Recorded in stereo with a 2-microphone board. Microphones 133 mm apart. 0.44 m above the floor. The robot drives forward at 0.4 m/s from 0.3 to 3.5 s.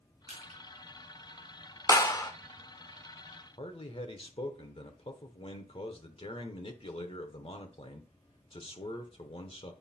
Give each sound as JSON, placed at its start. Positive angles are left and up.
{"t": 0.3, "sound": "crushing", "side_deg": 75, "distance_m": 3.5}
{"t": 1.9, "sound": "a clap", "side_deg": 25, "distance_m": 0.9}
{"t": 3.6, "sound": "a man speaking", "side_deg": 40, "distance_m": 1.0}